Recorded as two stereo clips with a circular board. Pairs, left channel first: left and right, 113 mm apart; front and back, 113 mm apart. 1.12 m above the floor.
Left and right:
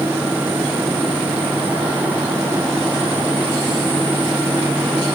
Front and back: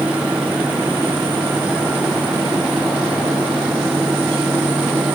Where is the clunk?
No clunk in this recording.